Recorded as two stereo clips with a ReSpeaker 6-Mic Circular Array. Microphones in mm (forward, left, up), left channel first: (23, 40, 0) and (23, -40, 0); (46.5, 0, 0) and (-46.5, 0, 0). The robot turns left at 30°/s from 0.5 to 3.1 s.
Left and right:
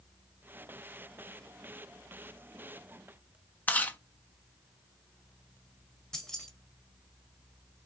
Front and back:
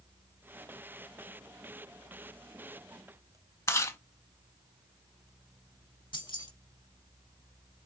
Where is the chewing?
35° left, 0.7 m.